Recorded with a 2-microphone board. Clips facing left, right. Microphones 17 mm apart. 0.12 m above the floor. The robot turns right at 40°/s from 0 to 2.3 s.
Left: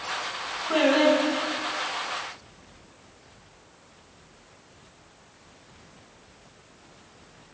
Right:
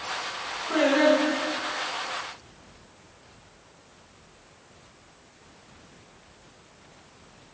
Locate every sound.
0.7 s singing: 70° left, 3.5 m; by 1.8 s 115° left, 3.5 m